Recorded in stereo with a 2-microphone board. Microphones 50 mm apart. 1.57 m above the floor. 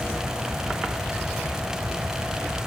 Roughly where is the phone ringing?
I don't hear a phone ringing.